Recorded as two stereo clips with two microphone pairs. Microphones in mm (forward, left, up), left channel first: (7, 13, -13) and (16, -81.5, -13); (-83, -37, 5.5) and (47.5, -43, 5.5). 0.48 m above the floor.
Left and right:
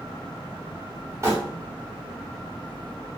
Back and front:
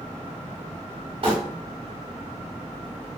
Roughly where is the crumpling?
Ahead right.